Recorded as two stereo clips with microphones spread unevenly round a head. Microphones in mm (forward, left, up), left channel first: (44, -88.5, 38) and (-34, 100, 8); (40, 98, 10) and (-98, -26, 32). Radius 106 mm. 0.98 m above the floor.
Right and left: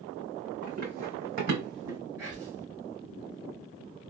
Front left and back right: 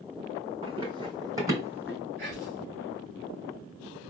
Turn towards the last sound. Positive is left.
turn(degrees=-170)